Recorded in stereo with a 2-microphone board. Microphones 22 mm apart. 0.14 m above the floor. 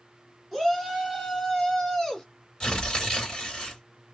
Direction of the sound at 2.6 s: 35° left (ahead or behind).